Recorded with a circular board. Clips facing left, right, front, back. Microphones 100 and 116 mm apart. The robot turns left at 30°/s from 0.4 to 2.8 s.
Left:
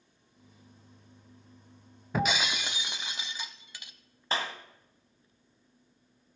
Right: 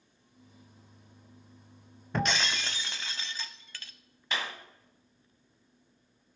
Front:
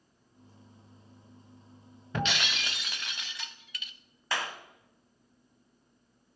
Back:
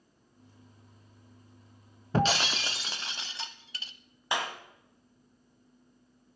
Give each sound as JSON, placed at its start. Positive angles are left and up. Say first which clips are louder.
{"t": 2.1, "sound": "breaking glass", "louder": "left 1 dB, back 6 dB", "azimuth_deg": 170, "distance_m": 0.5}
{"t": 4.3, "sound": "a clap", "louder": "left 3 dB, back 2 dB", "azimuth_deg": 115, "distance_m": 1.1}